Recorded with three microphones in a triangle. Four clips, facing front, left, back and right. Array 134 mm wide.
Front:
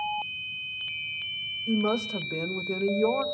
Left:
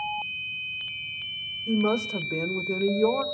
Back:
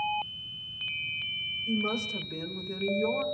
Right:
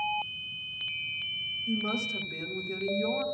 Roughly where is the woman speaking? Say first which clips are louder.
Left 8 dB, front 5 dB; left.